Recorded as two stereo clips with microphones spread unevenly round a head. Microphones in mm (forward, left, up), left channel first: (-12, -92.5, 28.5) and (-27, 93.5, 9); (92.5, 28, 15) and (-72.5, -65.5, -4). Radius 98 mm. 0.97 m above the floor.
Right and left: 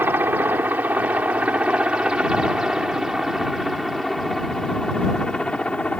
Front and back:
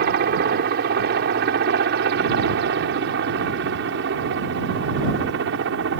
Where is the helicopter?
175° left; by 6.0 s 170° right.